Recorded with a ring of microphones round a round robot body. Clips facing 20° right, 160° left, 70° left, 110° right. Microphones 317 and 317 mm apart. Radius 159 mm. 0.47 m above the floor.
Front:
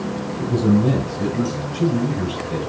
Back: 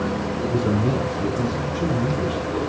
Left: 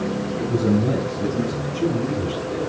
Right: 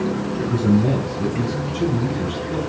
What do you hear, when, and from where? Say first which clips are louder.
0.4 s a man speaking: front 5 dB, right 2 dB; 45° right, 4.5 m; by 2.6 s 65° right, 5.5 m